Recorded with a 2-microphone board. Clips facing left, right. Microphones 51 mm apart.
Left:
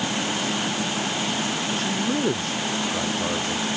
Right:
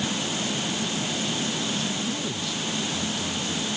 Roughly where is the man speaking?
Left.